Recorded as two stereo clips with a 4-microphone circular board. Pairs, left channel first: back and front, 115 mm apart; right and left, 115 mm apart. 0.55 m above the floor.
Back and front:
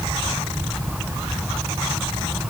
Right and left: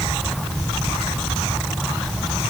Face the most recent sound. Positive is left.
No sound to turn to.